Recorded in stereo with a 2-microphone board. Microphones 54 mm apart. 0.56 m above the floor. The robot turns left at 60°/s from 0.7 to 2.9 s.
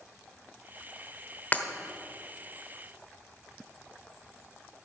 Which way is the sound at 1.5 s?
35° left (ahead or behind).